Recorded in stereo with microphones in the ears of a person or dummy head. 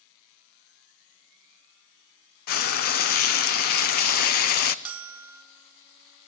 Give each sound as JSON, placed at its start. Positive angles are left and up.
{"t": 2.5, "sound": "frying", "side_deg": 55, "distance_m": 0.7}
{"t": 4.8, "sound": "a bell", "side_deg": -5, "distance_m": 1.4}